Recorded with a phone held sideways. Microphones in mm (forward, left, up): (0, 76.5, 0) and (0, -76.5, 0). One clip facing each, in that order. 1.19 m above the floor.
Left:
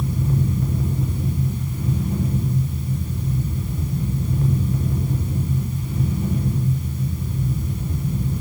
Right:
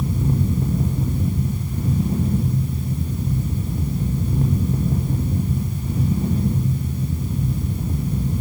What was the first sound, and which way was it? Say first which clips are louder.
A fan: right 1 dB; 35° right (ahead or behind).